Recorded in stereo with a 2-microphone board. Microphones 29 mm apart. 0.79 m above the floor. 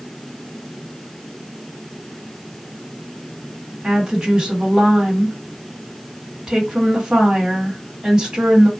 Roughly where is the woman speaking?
Right.